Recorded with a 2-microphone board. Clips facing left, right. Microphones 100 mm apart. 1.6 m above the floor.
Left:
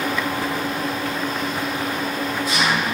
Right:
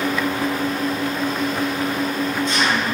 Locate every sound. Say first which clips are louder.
0.0 s an engine running: right 2 dB; 5° left (ahead or behind), 4.5 m